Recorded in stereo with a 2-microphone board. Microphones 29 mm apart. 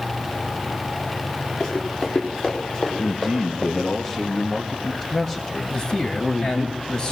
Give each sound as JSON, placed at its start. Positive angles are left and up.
{"t": 1.6, "sound": "running footsteps", "side_deg": 40, "distance_m": 9.5}
{"t": 3.0, "sound": "a man speaking", "side_deg": 25, "distance_m": 1.3}
{"t": 5.7, "sound": "a man speaking", "side_deg": 30, "distance_m": 3.0}